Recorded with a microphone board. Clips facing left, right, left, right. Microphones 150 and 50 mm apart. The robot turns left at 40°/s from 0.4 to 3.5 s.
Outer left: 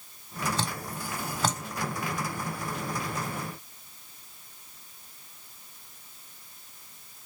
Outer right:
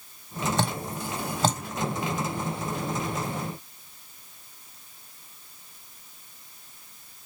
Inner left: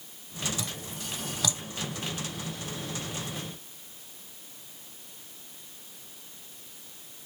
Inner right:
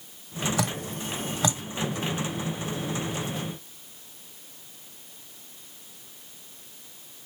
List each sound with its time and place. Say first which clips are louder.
0.6 s dripping: outer right 5 dB, inner right 8 dB; 60° right (ahead or behind), 0.7 m; by 1.6 s 20° right (ahead or behind), 0.7 m